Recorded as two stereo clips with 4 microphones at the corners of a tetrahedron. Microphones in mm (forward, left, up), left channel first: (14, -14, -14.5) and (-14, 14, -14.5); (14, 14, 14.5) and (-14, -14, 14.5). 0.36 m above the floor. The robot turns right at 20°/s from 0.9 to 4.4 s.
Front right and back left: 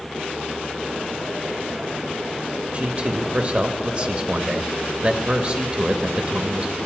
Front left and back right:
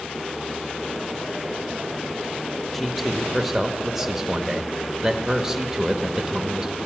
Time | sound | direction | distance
2.7 | a man speaking | 125° left | 0.9 m